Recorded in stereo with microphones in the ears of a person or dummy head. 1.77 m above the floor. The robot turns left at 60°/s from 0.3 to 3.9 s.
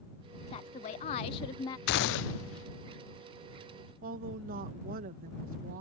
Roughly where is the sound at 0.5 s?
Left.